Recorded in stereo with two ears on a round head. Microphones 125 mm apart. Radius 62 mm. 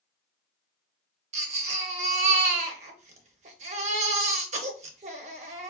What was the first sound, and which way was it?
A baby crying, 50° right (ahead or behind).